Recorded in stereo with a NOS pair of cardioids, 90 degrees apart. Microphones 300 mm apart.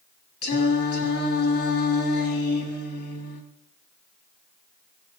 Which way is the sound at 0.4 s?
55° left.